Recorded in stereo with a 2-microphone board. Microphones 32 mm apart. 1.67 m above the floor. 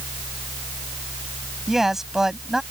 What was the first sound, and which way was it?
A man speaking, 10° right (ahead or behind).